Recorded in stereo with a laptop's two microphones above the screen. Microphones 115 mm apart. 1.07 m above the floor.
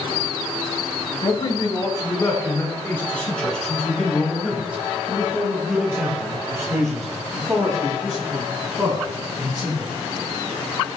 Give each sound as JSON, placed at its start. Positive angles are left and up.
{"t": 1.2, "sound": "a man speaking", "side_deg": 45, "distance_m": 4.5}